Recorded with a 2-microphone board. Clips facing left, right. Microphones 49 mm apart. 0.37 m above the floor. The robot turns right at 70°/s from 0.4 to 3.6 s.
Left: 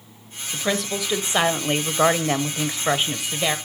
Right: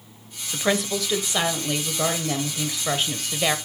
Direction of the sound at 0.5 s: 20° right.